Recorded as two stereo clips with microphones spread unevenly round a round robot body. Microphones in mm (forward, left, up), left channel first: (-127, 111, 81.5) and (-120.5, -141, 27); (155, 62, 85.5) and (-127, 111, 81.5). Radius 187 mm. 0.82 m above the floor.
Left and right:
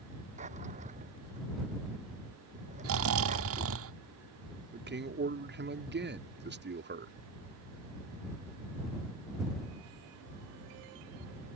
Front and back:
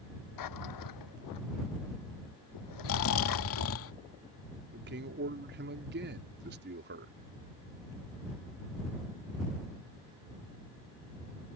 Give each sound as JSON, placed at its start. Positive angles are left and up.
{"t": 0.4, "sound": "a drawer", "azimuth_deg": -20}
{"t": 2.8, "sound": "snoring", "azimuth_deg": -55}
{"t": 4.7, "sound": "a man speaking", "azimuth_deg": -135}